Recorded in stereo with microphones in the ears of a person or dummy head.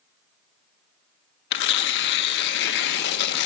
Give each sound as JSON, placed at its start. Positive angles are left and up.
{"t": 1.5, "sound": "tearing paper", "side_deg": 65, "distance_m": 0.9}